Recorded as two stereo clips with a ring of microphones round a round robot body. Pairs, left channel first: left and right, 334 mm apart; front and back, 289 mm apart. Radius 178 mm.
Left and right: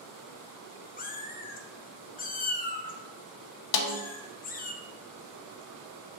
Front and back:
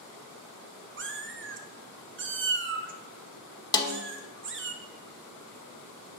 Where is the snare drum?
75° left, 0.8 m.